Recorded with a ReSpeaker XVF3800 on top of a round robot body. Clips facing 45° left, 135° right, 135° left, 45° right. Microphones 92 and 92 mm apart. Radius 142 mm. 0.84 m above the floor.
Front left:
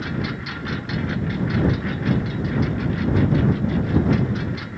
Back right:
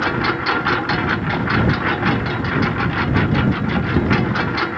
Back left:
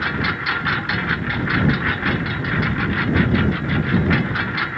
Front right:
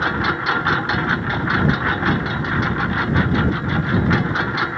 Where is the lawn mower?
110° right; by 4.8 s 115° right.